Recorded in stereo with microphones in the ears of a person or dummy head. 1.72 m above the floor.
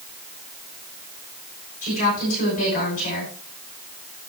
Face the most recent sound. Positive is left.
turn(degrees=45)  # may be behind; listen again after turning